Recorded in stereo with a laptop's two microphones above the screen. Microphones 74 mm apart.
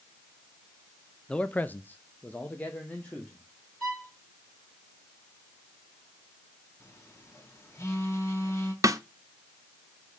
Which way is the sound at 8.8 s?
50° right (ahead or behind).